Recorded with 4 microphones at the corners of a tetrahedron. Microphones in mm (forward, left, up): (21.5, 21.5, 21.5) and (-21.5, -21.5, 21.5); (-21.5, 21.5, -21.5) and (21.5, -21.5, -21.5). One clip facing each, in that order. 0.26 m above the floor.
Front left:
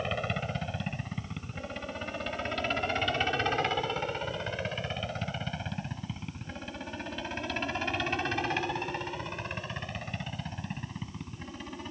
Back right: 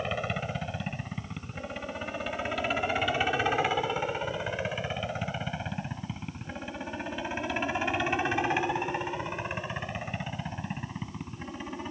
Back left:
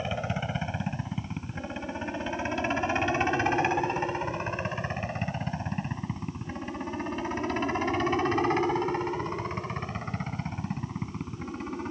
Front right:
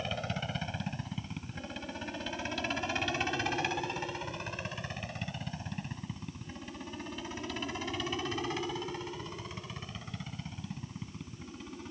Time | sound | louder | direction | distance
0.0 | a helicopter | back right 1 dB, back left 5 dB | 145° left | ?